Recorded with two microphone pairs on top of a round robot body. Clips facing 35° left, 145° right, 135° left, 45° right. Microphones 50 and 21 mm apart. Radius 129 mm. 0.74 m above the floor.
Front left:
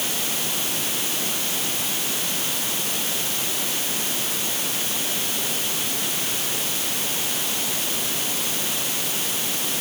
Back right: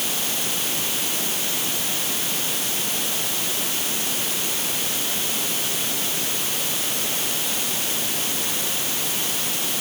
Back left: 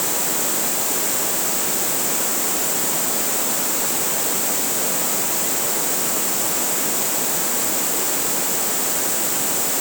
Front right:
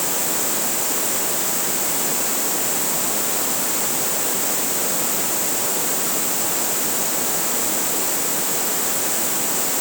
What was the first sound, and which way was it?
Only background noise.